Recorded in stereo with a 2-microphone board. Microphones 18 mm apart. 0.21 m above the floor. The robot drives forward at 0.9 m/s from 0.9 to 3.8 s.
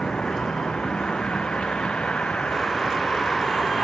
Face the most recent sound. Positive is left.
turn(degrees=70)  # may be behind; listen again after turning